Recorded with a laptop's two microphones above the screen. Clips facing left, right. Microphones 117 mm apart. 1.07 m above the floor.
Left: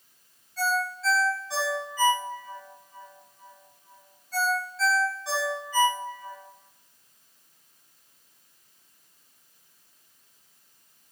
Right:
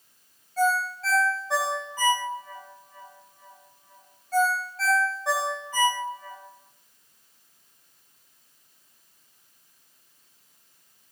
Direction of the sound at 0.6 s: 45° right (ahead or behind).